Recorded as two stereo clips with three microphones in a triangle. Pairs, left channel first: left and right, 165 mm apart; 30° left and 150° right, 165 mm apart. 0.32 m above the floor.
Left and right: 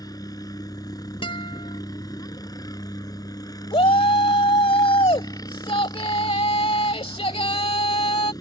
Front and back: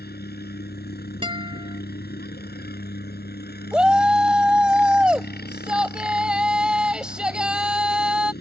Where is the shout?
125° left.